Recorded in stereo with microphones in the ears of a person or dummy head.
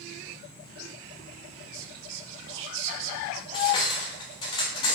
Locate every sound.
1.7 s whispering: 75° right (ahead or behind), 0.5 m
3.5 s cutlery clinking: 20° left (ahead or behind), 0.7 m